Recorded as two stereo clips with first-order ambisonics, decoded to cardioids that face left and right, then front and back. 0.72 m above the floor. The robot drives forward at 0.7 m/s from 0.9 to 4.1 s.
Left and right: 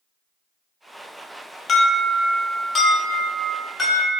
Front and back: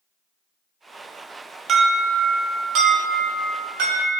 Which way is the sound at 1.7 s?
140° left.